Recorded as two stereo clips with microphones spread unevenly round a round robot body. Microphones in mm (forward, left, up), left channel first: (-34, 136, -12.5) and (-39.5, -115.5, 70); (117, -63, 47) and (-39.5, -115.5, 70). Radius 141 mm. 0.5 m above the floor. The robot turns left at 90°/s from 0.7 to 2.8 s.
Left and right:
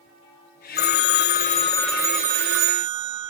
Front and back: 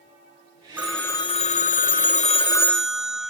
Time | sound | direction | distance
0.8 | a phone ringing | 115° left | ?